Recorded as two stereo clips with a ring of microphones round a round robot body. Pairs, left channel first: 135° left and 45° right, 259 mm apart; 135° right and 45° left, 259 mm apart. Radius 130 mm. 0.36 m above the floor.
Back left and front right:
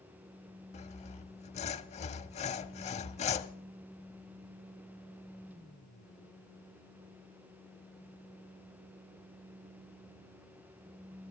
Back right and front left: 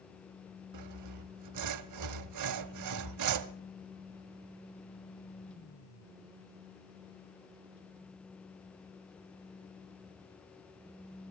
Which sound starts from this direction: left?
Sawing, at 0.7 s.